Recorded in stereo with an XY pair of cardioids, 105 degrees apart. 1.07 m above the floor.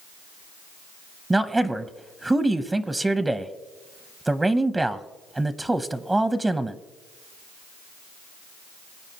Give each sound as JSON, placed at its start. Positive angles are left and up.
{"t": 1.3, "sound": "a man speaking", "azimuth_deg": -15, "distance_m": 0.7}